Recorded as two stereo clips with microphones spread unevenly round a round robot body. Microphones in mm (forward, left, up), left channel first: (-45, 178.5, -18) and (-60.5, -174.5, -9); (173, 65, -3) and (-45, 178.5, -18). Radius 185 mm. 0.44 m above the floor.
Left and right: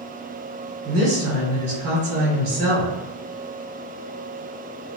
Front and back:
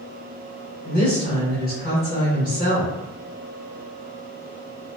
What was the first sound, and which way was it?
A woman speaking, 65° right.